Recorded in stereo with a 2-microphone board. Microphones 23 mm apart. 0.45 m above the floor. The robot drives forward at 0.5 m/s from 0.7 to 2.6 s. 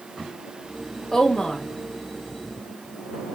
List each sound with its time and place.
1.1 s a woman speaking: 35° left (ahead or behind), 0.9 m